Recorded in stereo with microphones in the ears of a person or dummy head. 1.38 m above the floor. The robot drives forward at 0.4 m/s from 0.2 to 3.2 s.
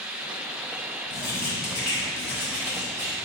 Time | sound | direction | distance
1.1 | writing | 15° left (ahead or behind) | 3 m